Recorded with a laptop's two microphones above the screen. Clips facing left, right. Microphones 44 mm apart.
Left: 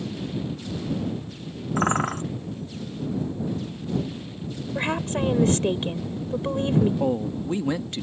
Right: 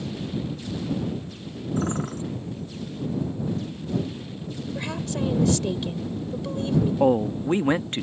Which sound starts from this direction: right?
A man speaking, at 7.0 s.